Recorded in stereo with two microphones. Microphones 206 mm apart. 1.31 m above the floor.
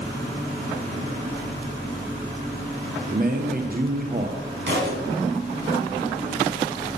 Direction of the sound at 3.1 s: 45° right (ahead or behind).